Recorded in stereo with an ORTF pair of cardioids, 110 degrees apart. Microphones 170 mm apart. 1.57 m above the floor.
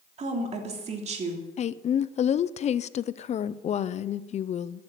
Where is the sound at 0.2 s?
40° right, 3 m.